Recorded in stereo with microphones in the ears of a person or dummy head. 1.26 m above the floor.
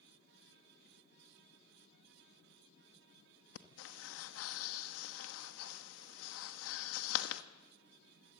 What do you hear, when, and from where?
3.5 s breathing: 75° left (ahead or behind), 1.1 m